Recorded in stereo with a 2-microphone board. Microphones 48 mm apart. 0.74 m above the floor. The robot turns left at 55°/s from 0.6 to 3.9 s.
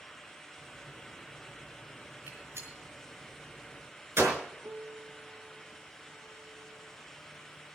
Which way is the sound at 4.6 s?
50° right (ahead or behind).